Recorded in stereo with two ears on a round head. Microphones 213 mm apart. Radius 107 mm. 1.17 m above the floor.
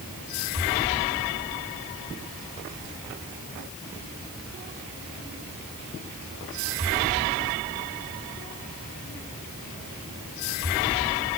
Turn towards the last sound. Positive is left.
No sound to turn to.